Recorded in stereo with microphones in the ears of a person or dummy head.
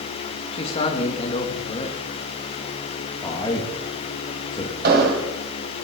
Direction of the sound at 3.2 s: 25° left (ahead or behind).